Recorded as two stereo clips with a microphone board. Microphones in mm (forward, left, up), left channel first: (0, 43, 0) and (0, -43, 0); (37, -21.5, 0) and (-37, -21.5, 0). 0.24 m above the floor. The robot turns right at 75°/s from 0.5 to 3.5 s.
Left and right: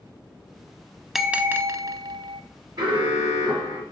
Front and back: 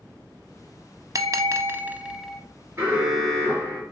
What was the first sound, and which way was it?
A bell, straight behind.